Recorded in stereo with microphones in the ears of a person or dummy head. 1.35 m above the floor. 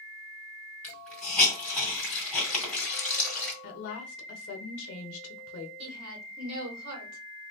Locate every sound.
0.8 s a hiss: 10° left (ahead or behind), 2.5 m
3.6 s a woman speaking: 55° left (ahead or behind), 0.8 m
5.8 s a woman speaking: 80° right, 1.8 m